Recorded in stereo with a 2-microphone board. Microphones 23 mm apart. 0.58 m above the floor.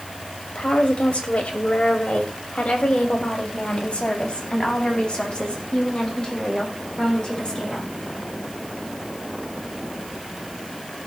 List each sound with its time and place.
0.6 s a woman speaking: 65° left (ahead or behind), 3 m; by 7.9 s 30° left (ahead or behind), 7 m